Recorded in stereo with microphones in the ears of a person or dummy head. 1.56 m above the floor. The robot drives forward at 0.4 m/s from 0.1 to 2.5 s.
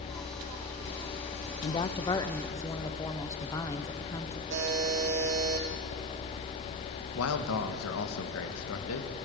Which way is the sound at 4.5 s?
55° right (ahead or behind).